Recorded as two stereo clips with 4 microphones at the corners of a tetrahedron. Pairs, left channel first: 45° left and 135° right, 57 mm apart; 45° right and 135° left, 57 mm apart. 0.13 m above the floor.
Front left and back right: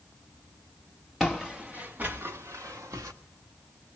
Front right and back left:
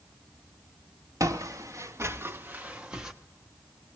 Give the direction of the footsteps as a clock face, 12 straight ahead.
7 o'clock.